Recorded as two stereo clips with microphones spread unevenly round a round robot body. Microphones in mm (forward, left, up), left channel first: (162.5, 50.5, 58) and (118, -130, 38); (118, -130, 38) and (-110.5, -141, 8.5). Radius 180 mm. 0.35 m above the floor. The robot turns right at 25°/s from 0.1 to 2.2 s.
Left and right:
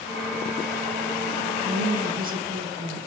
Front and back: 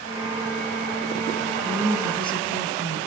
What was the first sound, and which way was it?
A woman speaking, 85° right.